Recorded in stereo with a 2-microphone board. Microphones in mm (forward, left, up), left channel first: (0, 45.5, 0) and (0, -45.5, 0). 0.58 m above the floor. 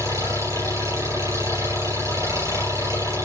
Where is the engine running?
35° right (ahead or behind), 6.5 m.